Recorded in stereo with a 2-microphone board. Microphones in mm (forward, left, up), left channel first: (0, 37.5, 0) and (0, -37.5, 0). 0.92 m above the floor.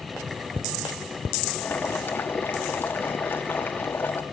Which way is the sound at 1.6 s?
25° left (ahead or behind).